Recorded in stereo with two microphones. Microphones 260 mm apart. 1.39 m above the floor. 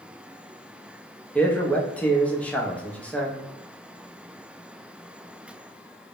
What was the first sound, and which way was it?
A man speaking, 5° left (ahead or behind).